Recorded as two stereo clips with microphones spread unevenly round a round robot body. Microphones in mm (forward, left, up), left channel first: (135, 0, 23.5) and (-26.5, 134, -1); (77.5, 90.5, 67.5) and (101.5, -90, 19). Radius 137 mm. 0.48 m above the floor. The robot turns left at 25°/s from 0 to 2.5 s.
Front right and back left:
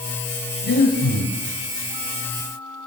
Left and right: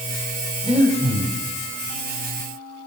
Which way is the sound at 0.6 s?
15° right.